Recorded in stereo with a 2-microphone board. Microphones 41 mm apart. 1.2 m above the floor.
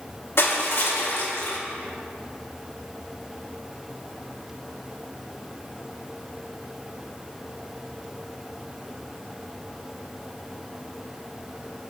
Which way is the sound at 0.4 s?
70° left (ahead or behind).